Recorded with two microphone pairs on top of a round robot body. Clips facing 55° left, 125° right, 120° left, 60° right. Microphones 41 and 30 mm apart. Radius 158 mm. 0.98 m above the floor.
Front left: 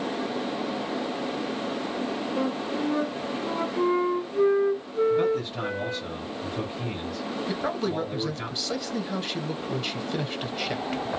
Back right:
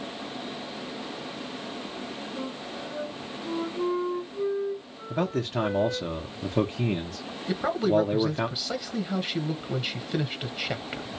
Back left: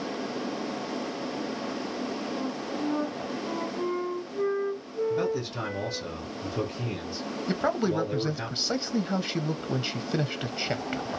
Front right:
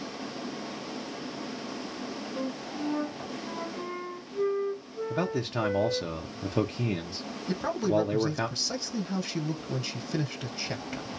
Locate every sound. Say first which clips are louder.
2.4 s a flute: front left 10 dB, back left 2 dB; 15° left, 0.5 m
5.1 s a man speaking: front left 4 dB, front right 1 dB; 100° right, 0.6 m
7.5 s a man speaking: back right 6 dB, back left 1 dB; 145° left, 0.8 m